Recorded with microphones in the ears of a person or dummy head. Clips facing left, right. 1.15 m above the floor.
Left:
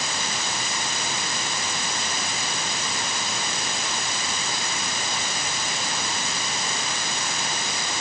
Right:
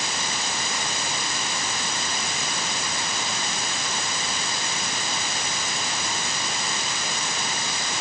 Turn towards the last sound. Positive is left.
No sound to turn to.